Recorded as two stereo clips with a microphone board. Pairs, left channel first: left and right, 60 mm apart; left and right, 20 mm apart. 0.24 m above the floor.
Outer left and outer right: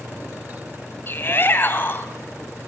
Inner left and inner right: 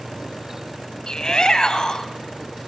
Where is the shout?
40° left (ahead or behind), 1.3 m.